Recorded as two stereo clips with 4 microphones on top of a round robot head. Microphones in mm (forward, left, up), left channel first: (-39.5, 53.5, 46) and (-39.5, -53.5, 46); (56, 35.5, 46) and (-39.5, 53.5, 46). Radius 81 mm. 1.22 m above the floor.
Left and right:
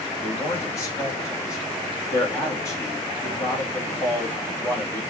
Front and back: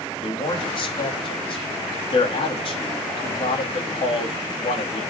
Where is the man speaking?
20° left, 2 m.